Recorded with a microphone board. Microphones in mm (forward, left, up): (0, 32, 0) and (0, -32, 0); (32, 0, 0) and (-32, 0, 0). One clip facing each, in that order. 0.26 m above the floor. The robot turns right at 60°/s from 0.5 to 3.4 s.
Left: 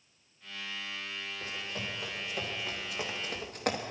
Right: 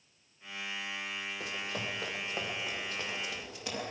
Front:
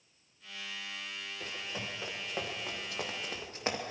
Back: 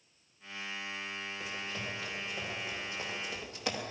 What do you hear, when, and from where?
1.4 s running footsteps: 105° right, 5 m; by 3.8 s 60° left, 3 m